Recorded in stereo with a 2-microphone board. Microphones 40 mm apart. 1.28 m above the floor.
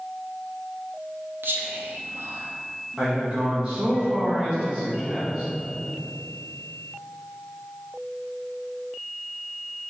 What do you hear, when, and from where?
1.4 s whispering: 75° right (ahead or behind), 0.8 m
3.0 s a man speaking: 20° right (ahead or behind), 1.2 m